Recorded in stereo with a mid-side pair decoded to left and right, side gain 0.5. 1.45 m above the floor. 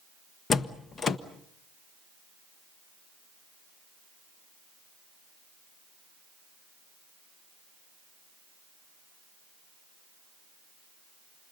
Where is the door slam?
40° left, 1.3 m.